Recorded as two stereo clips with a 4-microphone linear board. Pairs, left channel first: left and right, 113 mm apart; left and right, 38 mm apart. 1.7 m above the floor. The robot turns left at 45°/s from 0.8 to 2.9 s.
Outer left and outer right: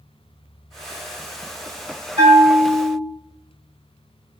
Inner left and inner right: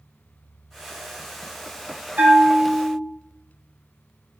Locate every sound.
2.2 s a bell: 95° right, 1.2 m; by 3.0 s 130° right, 1.2 m